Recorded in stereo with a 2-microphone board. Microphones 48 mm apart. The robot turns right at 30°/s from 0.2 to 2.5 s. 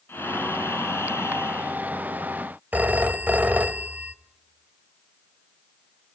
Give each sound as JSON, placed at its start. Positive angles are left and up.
{"t": 0.1, "sound": "breathing", "azimuth_deg": 60, "distance_m": 1.9}
{"t": 2.7, "sound": "a phone ringing", "side_deg": -35, "distance_m": 1.0}